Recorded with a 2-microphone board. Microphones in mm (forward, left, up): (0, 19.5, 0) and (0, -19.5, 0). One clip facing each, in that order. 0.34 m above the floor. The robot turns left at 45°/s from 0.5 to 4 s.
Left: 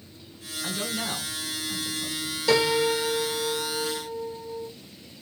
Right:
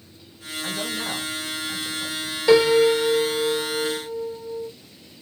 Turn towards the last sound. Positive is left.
turn(degrees=-5)  # may be behind; listen again after turning